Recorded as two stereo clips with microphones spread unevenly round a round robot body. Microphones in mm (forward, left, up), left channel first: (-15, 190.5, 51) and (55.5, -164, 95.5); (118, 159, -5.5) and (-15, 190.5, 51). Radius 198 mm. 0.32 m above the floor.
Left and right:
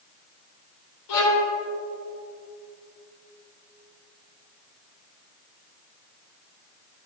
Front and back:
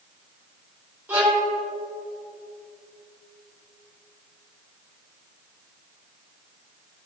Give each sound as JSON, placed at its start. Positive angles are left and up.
{"t": 1.1, "sound": "a violin", "azimuth_deg": 90, "distance_m": 3.0}